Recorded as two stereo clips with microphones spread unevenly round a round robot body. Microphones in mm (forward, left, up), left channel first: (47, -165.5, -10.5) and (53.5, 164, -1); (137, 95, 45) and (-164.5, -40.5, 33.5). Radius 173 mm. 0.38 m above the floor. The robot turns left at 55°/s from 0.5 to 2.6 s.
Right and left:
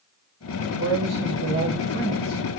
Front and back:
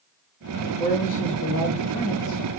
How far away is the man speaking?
About 1.4 m.